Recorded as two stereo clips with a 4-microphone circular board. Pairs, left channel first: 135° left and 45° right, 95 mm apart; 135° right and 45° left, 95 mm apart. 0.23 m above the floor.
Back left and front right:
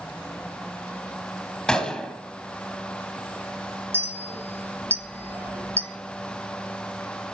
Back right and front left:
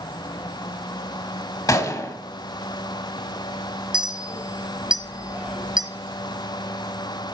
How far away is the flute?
I don't hear a flute.